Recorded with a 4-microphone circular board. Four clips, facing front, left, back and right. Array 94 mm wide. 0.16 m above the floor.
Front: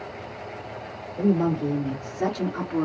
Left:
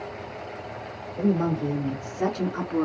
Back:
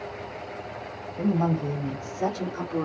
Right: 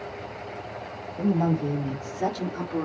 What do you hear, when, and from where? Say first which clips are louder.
1.2 s a woman speaking: even, front 3 dB; 45° left, 3 m; by 2.9 s 65° left, 2 m